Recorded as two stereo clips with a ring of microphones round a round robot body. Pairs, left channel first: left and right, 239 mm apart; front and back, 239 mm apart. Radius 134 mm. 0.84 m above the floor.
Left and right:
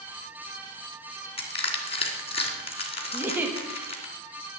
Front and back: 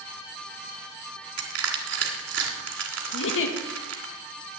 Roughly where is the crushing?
Behind left.